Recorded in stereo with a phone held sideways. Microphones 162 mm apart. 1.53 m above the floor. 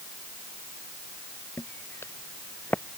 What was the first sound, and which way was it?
Footsteps, 15° left (ahead or behind).